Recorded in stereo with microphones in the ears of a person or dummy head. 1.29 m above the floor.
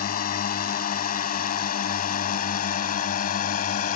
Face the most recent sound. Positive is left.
turn(degrees=45)  # may be behind; listen again after turning